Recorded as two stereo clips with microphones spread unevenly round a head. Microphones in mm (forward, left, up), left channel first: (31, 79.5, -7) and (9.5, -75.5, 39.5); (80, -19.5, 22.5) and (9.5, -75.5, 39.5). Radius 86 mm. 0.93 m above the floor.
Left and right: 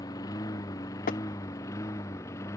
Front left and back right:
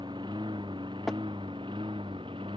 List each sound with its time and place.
0.0 s a lawn mower: 155° left; by 2.6 s 160° left
1.1 s tapping: 130° left